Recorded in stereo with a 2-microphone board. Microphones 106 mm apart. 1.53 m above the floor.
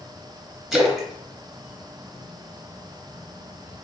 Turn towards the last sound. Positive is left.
turn(degrees=0)  # may be behind; listen again after turning